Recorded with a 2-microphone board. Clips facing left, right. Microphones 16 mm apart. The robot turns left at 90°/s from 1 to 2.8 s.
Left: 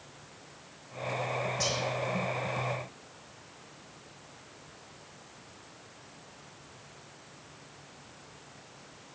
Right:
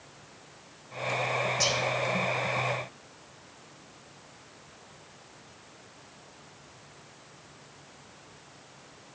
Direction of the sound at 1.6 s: 25° right (ahead or behind).